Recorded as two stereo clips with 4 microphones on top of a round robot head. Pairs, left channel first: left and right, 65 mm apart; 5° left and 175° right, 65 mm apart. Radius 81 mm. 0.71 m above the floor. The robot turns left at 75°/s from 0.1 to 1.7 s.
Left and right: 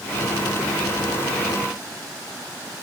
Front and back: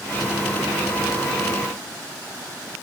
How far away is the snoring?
I don't hear snoring.